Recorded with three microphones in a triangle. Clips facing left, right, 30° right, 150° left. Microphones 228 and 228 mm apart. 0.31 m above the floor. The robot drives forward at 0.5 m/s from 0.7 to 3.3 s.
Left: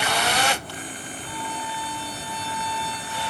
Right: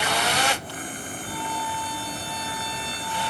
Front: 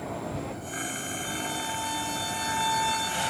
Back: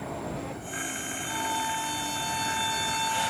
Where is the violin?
60° right, 7.5 m; by 3.3 s 70° right, 7 m.